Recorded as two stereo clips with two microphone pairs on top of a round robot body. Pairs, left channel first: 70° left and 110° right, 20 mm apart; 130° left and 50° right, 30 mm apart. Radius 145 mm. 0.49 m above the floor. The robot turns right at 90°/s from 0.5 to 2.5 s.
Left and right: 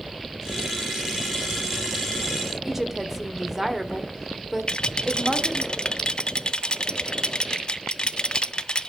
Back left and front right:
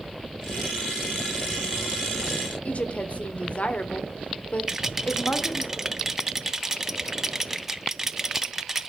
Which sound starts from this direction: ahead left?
A rattle, at 4.7 s.